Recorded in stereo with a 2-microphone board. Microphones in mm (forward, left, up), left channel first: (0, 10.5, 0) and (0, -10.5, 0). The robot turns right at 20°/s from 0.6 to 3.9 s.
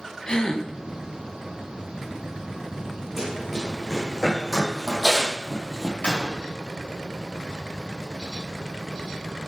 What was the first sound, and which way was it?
A gasp, 40° left (ahead or behind).